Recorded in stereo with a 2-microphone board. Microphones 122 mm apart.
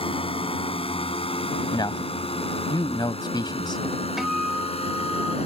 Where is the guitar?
5° right (ahead or behind).